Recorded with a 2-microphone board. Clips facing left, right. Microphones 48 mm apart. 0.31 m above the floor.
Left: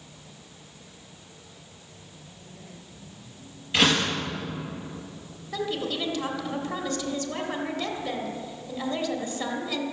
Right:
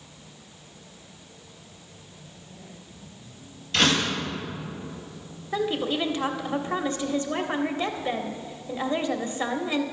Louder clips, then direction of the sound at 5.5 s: Right 4 dB; 25° right (ahead or behind).